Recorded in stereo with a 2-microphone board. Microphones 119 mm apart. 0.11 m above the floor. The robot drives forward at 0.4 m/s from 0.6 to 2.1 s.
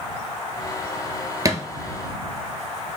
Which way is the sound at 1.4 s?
30° right (ahead or behind).